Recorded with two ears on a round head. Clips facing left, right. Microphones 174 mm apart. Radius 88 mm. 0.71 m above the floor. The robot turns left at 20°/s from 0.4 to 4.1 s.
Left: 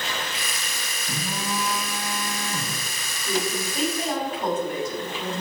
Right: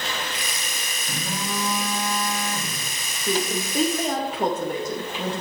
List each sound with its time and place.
1.1 s a phone buzzing: straight behind, 3.5 m; by 2.8 s 145° left, 3.5 m
3.2 s a woman speaking: 25° right (ahead or behind), 3 m; by 5.4 s 40° right (ahead or behind), 3 m